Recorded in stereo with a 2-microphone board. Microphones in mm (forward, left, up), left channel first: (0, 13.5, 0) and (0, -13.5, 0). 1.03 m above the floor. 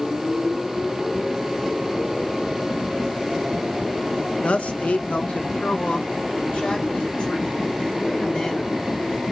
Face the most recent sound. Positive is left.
turn(degrees=50)  # may be behind; listen again after turning